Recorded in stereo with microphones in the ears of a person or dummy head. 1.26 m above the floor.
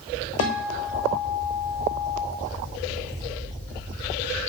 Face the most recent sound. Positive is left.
turn(degrees=75)  # may be behind; listen again after turning